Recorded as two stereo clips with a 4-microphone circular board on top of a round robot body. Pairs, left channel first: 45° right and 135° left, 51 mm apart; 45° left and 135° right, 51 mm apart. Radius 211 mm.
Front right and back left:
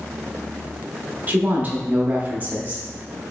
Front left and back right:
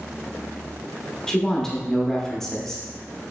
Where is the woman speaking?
120° left, 0.9 m.